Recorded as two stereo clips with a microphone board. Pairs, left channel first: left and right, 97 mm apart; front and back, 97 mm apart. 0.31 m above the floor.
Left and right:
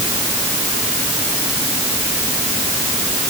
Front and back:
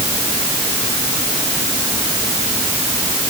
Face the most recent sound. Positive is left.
No sound to turn to.